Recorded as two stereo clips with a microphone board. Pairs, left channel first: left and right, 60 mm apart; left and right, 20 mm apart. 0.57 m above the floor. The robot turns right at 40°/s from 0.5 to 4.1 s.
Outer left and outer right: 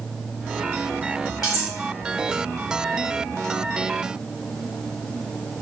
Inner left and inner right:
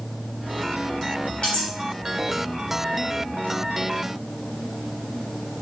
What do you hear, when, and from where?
1.4 s cutlery clinking: 65° left (ahead or behind), 1.1 m; by 1.7 s 55° left (ahead or behind), 1.1 m